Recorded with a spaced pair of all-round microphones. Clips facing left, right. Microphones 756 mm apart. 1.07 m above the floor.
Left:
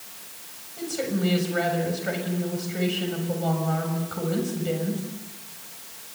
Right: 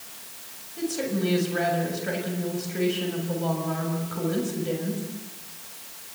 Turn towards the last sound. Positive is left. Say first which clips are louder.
# even
turn(degrees=20)  # may be behind; listen again after turning